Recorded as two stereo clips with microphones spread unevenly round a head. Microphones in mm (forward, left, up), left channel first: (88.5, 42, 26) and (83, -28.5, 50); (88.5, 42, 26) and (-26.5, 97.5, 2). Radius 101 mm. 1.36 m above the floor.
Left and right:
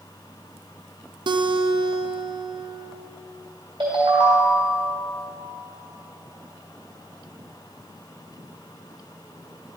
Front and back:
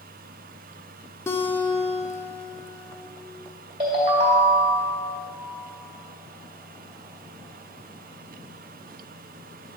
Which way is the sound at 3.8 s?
140° right.